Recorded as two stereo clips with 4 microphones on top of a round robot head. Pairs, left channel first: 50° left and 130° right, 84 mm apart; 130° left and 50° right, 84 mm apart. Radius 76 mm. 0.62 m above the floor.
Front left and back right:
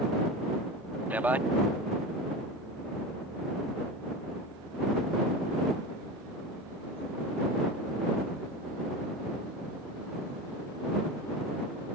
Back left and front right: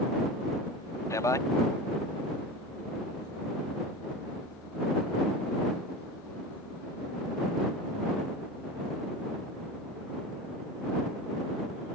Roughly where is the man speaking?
Behind.